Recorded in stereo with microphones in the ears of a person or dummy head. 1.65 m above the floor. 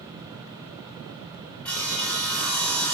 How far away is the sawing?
About 2.0 m.